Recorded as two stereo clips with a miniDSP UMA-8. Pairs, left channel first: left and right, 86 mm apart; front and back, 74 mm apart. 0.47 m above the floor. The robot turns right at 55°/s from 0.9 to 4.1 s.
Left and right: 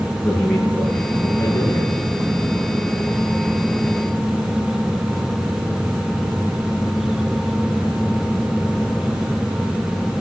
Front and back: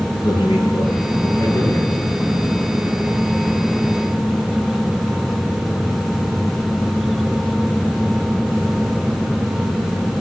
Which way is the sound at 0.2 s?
10° left.